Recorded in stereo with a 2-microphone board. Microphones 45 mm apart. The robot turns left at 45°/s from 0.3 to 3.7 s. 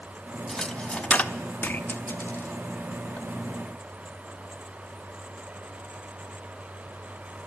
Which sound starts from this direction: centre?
A dropped coin, at 0.5 s.